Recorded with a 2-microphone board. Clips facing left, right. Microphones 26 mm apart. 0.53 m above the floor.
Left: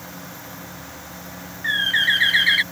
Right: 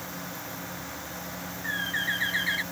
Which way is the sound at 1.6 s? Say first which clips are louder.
Left 11 dB; 80° left.